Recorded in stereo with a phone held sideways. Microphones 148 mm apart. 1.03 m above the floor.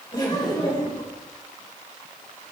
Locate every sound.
0.1 s laughter: 30° left (ahead or behind), 4.5 m